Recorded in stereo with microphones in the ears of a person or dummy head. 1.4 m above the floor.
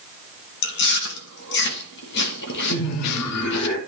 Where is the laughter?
65° left (ahead or behind), 3.5 m.